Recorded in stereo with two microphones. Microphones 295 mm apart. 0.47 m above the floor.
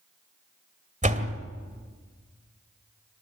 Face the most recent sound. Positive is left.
turn(degrees=-25)  # may be behind; listen again after turning